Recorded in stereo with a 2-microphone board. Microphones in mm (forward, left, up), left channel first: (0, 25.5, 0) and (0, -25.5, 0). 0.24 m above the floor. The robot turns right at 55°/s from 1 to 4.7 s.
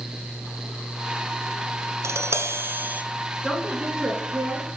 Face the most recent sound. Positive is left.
turn(degrees=-115)